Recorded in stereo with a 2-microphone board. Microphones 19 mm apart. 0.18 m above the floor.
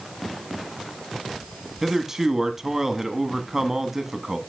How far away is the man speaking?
About 1.1 m.